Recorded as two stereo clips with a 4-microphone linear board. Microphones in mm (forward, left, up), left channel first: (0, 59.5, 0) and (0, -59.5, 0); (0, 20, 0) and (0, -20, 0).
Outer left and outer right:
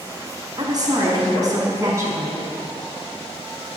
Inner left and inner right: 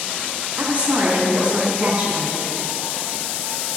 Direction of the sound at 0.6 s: 35° right (ahead or behind).